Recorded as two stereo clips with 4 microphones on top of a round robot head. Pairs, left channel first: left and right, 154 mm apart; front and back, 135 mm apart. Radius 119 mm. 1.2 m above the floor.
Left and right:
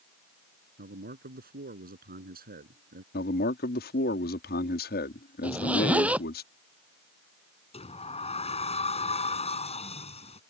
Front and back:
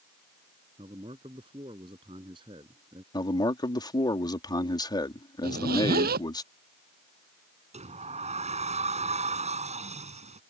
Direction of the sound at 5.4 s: 170° right.